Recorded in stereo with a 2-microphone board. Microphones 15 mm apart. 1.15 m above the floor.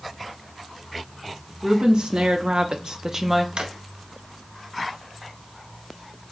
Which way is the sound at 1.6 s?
70° right (ahead or behind).